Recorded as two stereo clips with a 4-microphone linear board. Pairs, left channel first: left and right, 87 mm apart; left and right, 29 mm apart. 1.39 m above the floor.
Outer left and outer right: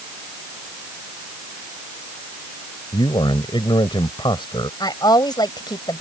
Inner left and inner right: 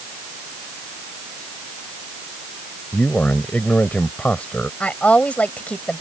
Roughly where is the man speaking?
Left.